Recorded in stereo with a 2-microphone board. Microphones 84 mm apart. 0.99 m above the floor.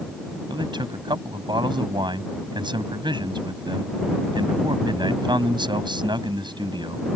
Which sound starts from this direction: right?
A man speaking, at 0.5 s.